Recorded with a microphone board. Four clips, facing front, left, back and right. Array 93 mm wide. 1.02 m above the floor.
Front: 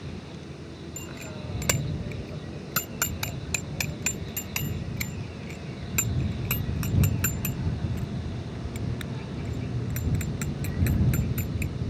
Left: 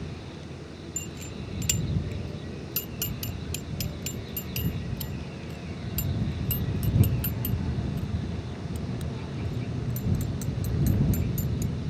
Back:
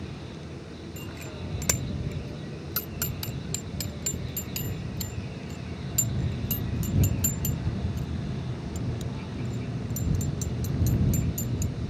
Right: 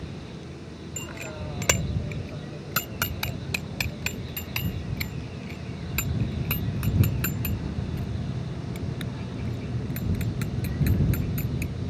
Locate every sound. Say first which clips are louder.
1.0 s a bicycle bell: right 5 dB, front 1 dB; 85° right; by 11.7 s 35° right